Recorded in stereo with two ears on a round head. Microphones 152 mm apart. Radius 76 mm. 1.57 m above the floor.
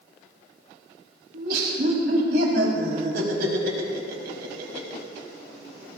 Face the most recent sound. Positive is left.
turn(degrees=-60)  # may be behind; listen again after turning